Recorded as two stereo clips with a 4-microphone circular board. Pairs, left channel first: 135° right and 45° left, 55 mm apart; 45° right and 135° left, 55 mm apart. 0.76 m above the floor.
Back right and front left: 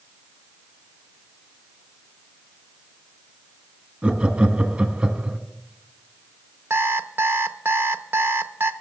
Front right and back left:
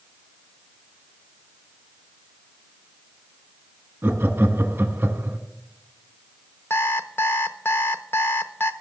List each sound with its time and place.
4.0 s laughter: 100° left, 1.3 m
6.7 s an alarm clock: straight ahead, 0.7 m